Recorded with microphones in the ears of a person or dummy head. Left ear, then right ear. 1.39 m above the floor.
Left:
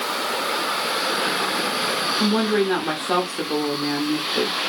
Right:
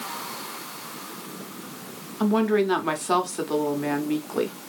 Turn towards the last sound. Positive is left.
turn(degrees=-20)  # may be behind; listen again after turning